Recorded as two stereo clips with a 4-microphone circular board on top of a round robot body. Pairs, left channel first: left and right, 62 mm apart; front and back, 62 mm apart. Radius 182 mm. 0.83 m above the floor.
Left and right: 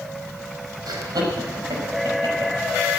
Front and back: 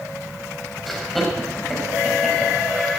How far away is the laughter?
About 6 m.